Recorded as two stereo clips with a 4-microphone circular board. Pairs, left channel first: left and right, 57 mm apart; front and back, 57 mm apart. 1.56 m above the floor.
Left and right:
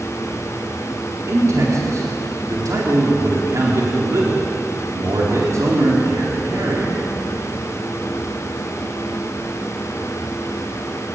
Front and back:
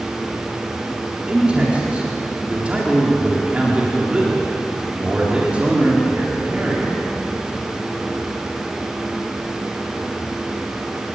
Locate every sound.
1.3 s a man speaking: 110° right, 4 m